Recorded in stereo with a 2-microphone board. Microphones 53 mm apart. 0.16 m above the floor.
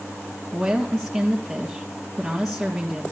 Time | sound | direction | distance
0.5 | a woman speaking | 10° right (ahead or behind) | 1.9 m